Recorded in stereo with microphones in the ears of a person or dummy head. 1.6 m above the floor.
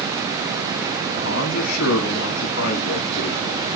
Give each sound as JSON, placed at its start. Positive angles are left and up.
{"t": 1.1, "sound": "a man speaking", "side_deg": 65, "distance_m": 2.5}